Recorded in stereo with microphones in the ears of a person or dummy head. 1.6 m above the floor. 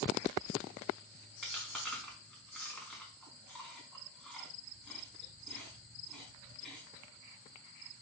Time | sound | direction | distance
1.4 | chewing | 10° left (ahead or behind) | 1.4 m